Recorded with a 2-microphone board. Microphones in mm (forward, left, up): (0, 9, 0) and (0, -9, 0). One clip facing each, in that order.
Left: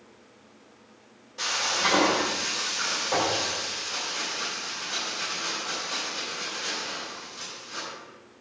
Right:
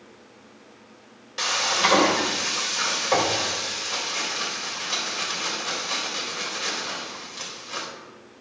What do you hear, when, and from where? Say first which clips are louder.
1.4 s frying: right 4 dB; 60° right (ahead or behind), 4 m